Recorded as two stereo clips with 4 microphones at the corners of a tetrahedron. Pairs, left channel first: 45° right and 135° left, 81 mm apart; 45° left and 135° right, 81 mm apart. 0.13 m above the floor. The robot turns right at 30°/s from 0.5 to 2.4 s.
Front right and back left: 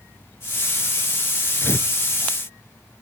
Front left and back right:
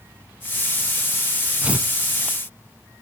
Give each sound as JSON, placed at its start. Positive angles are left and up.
{"t": 1.6, "sound": "tearing paper", "azimuth_deg": -80, "distance_m": 1.0}